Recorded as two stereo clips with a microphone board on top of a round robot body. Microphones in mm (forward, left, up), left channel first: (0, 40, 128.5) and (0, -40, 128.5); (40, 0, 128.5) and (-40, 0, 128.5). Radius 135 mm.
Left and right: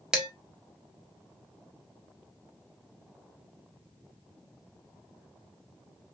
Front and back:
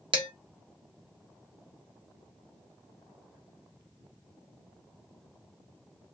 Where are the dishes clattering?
170° right, 1.2 m.